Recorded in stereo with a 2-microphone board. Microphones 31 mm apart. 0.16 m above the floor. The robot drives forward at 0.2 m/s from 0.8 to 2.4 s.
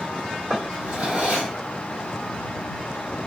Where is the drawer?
70° right (ahead or behind), 1.3 m; by 1.5 s 75° right (ahead or behind), 1.3 m.